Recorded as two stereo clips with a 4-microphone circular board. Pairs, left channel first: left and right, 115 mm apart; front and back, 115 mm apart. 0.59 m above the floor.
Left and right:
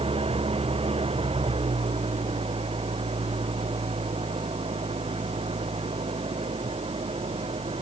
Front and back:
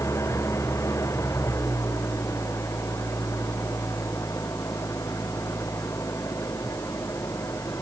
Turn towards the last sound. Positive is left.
turn(degrees=-65)